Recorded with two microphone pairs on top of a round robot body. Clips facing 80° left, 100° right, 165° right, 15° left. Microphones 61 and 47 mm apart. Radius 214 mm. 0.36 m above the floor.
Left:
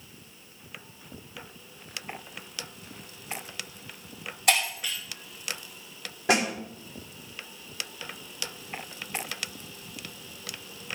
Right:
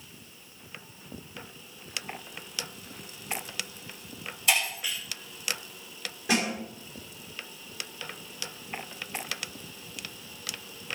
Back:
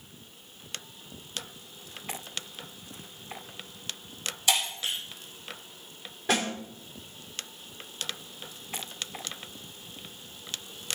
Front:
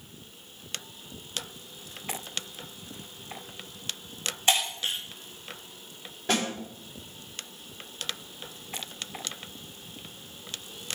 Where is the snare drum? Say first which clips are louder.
Left 3 dB, even; 105° left, 4 m.